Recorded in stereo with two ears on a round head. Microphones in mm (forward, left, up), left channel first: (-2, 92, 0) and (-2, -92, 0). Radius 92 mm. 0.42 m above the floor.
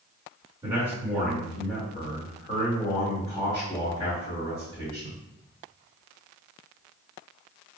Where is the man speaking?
15° right (ahead or behind), 1.5 m; by 5.2 s 55° left (ahead or behind), 2 m.